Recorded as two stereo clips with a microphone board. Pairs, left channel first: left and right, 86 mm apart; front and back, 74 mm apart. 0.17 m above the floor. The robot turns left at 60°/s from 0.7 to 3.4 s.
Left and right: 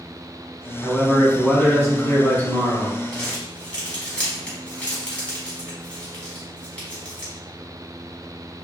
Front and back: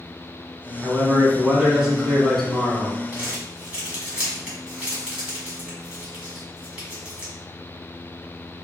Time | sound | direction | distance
0.8 | a man speaking | 170° left | 1.0 m
3.1 | crumpling | 160° left | 1.1 m